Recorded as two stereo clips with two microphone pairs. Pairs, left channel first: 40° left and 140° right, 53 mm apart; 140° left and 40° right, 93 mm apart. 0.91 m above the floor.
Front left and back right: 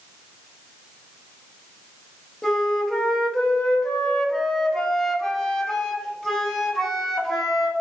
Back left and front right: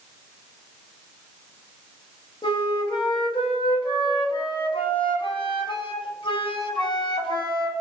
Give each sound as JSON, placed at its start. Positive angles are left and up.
{"t": 2.4, "sound": "a flute", "azimuth_deg": 115, "distance_m": 0.6}